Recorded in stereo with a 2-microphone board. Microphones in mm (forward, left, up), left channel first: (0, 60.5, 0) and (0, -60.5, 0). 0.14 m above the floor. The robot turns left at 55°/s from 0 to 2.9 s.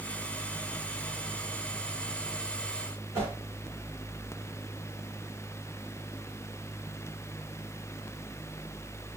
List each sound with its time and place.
3.1 s a whoosh: 20° right (ahead or behind), 2 m